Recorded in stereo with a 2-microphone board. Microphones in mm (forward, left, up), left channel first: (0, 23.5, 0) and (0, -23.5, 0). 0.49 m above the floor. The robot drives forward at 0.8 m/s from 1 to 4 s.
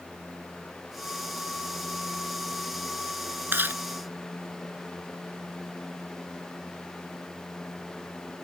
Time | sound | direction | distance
3.5 | chewing | 50° right (ahead or behind) | ?